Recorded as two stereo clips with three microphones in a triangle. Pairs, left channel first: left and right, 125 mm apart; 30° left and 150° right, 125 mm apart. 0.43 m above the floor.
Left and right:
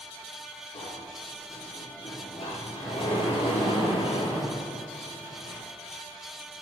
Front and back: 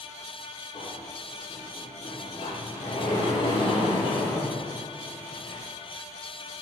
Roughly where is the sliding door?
Ahead left.